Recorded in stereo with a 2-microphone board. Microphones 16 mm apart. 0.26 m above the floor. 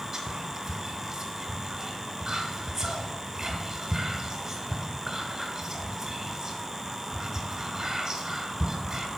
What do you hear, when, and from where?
0.1 s whispering: 25° right (ahead or behind), 1.6 m